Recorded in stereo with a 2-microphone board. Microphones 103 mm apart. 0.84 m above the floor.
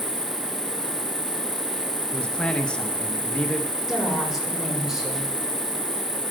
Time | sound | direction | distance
0.0 | an insect | 15° right (ahead or behind) | 1.1 m
2.1 | a man speaking | 10° left (ahead or behind) | 0.9 m
3.9 | a woman speaking | 5° right (ahead or behind) | 4 m